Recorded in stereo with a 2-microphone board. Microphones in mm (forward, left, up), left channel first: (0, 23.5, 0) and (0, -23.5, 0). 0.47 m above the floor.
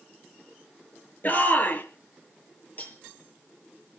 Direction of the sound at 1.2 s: 35° left (ahead or behind).